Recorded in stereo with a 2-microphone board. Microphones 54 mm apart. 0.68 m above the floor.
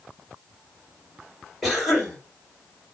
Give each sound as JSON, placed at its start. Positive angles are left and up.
{"t": 1.6, "sound": "a cough", "side_deg": 0, "distance_m": 2.5}